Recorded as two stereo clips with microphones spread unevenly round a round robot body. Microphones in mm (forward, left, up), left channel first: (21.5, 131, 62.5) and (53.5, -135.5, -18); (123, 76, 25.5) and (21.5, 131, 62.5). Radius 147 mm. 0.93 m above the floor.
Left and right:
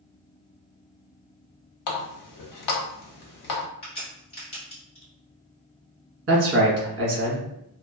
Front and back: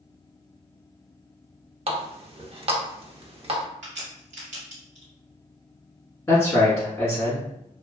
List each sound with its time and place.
1.9 s a running tap: 115° left, 0.6 m
3.8 s a crack: 175° left, 1.1 m
6.3 s a man speaking: 95° right, 1.1 m